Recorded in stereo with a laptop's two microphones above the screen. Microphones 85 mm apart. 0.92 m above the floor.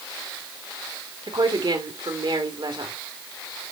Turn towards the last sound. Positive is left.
turn(degrees=-70)  # may be behind; listen again after turning